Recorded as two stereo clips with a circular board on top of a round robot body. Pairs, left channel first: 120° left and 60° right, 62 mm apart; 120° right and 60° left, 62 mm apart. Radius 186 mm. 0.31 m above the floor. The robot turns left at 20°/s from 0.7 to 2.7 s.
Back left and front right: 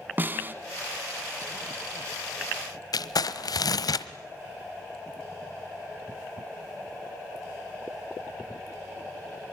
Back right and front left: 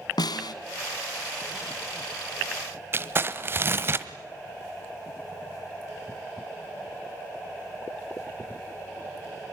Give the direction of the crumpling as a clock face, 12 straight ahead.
8 o'clock.